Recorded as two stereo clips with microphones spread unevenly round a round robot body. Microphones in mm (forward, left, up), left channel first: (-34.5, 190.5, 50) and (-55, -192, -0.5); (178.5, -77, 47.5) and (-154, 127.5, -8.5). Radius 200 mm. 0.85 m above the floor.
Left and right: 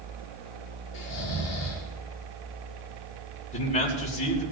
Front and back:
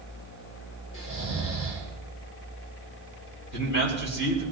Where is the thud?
No thud in this recording.